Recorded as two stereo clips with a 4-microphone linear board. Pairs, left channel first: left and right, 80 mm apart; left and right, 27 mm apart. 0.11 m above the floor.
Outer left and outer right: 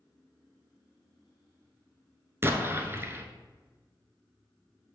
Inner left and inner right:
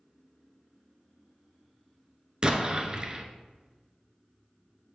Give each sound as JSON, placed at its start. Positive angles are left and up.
{"t": 2.4, "sound": "an explosion", "side_deg": -30, "distance_m": 0.7}